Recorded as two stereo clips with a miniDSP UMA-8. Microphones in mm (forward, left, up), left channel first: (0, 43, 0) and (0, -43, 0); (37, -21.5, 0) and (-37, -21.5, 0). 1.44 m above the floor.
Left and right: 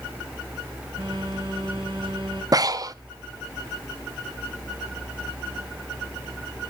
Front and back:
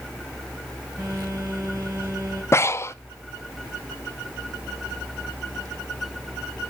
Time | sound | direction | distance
1.0 | a phone buzzing | 115° right | 6.5 m
2.5 | breathing | 50° right | 0.5 m